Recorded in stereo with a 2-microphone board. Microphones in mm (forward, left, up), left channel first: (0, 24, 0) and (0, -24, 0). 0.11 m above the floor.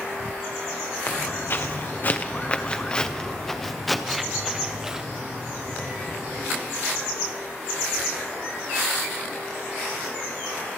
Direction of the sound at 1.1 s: 55° left (ahead or behind).